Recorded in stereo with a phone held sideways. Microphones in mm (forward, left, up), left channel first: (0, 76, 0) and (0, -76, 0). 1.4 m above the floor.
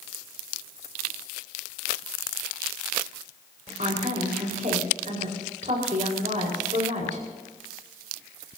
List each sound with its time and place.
3.8 s a woman speaking: 55° right (ahead or behind), 5 m